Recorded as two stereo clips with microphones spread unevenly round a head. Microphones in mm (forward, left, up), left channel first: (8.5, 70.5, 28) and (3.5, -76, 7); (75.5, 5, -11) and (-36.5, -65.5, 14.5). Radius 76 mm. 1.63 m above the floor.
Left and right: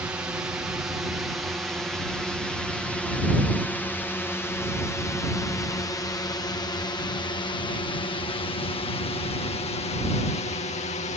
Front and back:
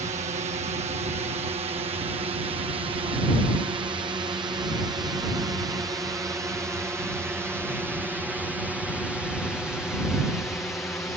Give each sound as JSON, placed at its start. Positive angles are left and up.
{"t": 0.0, "sound": "a drone", "azimuth_deg": -160}